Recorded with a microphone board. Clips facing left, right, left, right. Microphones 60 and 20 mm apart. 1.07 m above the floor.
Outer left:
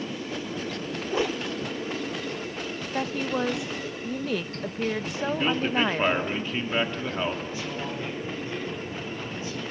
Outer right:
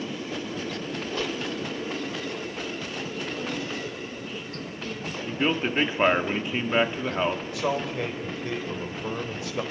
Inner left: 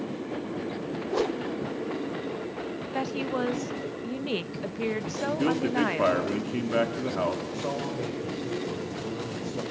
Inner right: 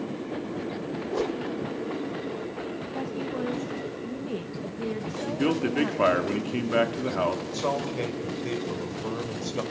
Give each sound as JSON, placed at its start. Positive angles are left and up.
{"t": 1.1, "sound": "a whoosh", "side_deg": 20, "distance_m": 0.6}
{"t": 2.9, "sound": "a woman speaking", "side_deg": 70, "distance_m": 0.9}
{"t": 5.3, "sound": "a man speaking", "side_deg": -15, "distance_m": 1.7}
{"t": 7.5, "sound": "a man speaking", "side_deg": -80, "distance_m": 5.0}